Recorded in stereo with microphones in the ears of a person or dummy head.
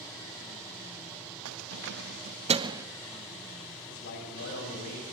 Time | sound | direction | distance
1.4 | keys jangling | 85° right | 0.8 m
3.9 | a man speaking | 60° left (ahead or behind) | 7.5 m